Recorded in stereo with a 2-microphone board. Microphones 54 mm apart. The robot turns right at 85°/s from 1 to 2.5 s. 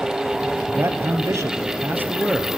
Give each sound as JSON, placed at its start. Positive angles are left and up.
{"t": 0.7, "sound": "a man speaking", "azimuth_deg": -130, "distance_m": 2.5}